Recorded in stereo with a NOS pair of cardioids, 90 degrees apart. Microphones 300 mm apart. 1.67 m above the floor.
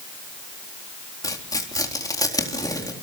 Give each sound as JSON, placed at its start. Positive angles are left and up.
{"t": 1.2, "sound": "tearing paper", "azimuth_deg": 10, "distance_m": 4.0}